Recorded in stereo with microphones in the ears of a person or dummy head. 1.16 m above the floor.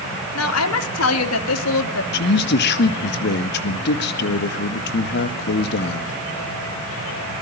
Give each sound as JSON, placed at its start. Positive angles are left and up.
{"t": 0.3, "sound": "a woman speaking", "side_deg": 85, "distance_m": 3.0}
{"t": 2.1, "sound": "a man speaking", "side_deg": 60, "distance_m": 1.6}